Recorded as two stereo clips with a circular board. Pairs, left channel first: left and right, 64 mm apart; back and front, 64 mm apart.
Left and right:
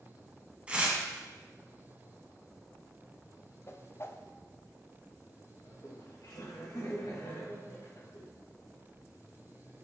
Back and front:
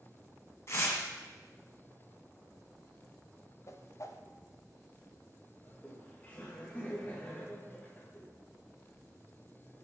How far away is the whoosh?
About 0.6 m.